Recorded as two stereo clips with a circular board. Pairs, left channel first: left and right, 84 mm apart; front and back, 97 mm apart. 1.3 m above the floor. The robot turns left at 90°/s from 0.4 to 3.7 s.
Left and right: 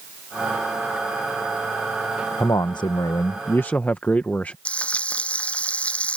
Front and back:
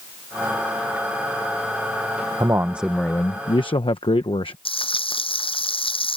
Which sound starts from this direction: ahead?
Frying, at 4.7 s.